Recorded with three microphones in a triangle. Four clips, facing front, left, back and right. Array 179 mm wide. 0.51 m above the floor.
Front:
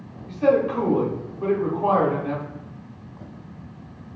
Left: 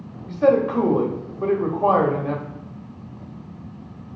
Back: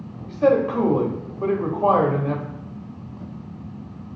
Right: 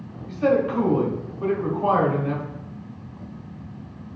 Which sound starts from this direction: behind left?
A man speaking, at 0.3 s.